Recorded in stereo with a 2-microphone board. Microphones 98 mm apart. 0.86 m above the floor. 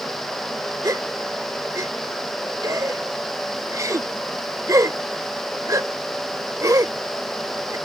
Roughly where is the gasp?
Right.